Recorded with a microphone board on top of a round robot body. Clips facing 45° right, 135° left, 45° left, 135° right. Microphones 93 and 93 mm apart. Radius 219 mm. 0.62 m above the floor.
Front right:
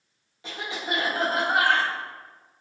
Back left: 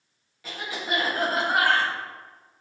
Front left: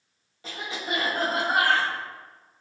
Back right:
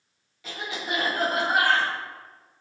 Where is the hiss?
No hiss in this recording.